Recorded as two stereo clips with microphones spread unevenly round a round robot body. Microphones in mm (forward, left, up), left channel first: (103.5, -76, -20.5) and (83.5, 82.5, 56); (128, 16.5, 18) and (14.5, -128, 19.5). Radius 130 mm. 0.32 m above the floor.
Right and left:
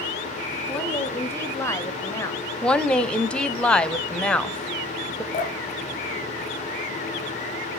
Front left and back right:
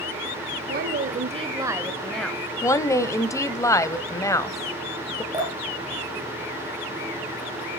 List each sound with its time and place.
0.7 s a woman speaking: 145° right, 1.6 m; by 2.5 s 30° right, 2 m
2.6 s a woman speaking: 20° right, 1.5 m
5.3 s dripping: 60° right, 3.5 m